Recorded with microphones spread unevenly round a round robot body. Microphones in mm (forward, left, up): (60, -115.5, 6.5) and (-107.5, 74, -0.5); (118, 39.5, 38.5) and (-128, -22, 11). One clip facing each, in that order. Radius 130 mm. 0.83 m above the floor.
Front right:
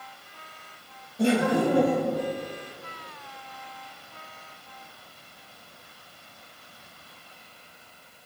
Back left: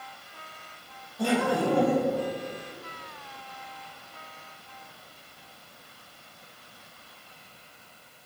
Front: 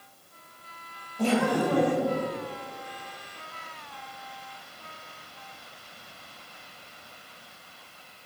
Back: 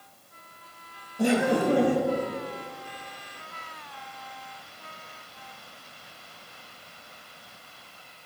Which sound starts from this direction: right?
Laughter, at 1.2 s.